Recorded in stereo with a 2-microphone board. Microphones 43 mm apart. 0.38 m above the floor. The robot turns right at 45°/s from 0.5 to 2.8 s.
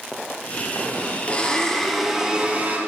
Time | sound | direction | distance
1.3 | a blender | 150° left | 3.5 m